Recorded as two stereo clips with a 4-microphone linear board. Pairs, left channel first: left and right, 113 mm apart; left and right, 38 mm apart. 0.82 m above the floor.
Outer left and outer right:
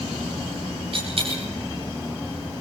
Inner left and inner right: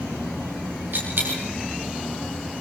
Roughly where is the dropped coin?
Right.